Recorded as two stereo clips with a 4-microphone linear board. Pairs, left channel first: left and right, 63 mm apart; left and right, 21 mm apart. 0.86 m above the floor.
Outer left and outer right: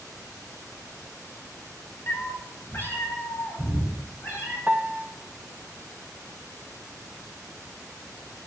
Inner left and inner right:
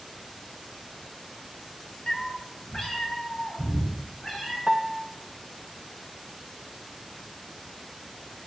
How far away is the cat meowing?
About 1.8 m.